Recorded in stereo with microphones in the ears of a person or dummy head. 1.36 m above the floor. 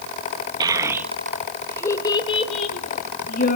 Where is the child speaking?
20° right (ahead or behind), 1.6 m; by 3.6 s 55° left (ahead or behind), 2.5 m.